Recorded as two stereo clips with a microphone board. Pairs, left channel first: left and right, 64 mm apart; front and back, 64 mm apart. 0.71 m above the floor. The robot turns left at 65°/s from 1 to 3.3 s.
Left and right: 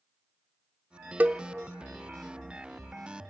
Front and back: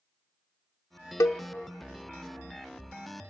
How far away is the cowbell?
About 0.7 m.